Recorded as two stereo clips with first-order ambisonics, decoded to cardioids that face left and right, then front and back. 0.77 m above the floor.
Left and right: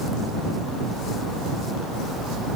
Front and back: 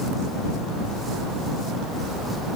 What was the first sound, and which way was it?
Only background noise.